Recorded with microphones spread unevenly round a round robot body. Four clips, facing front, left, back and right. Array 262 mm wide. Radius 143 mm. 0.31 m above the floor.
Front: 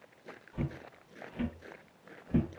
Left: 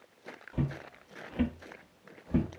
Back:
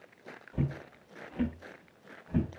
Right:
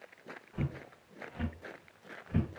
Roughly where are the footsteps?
Behind left.